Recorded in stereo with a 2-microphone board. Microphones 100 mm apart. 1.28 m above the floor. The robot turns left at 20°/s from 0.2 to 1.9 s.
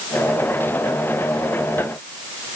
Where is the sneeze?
I don't hear a sneeze.